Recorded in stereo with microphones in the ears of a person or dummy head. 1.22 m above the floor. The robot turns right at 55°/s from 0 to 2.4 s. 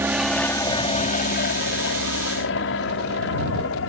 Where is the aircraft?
10° right (ahead or behind); by 3.9 s 60° left (ahead or behind).